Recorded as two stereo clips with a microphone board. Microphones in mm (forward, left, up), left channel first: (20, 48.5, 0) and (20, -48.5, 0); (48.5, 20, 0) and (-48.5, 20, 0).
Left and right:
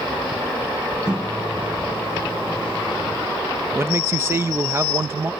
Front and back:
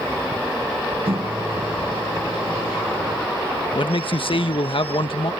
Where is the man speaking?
25° right.